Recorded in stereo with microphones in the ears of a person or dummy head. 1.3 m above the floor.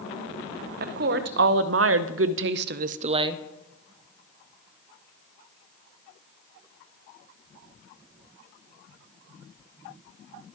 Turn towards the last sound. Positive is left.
turn(degrees=-15)  # may be behind; listen again after turning